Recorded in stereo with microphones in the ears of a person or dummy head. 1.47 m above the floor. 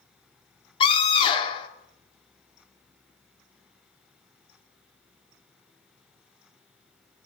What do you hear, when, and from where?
0.8 s a scream: 30° left (ahead or behind), 4.5 m